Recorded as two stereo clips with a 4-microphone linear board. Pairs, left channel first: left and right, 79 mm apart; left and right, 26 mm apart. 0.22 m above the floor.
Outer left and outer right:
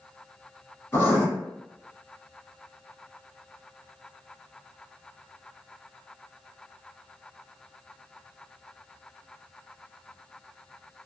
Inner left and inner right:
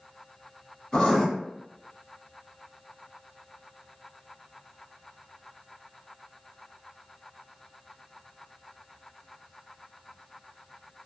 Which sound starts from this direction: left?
Writing, at 0.9 s.